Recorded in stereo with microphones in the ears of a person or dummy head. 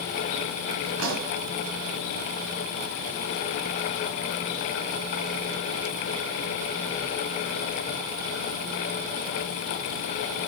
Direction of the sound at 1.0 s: 60° right (ahead or behind).